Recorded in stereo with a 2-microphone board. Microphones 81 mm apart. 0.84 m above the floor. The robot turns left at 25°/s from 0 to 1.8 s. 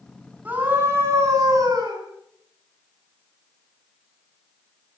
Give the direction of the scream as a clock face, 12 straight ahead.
1 o'clock.